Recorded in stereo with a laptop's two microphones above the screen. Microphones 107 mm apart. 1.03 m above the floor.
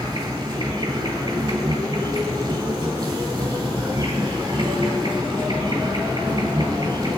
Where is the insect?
45° right (ahead or behind), 3.5 m.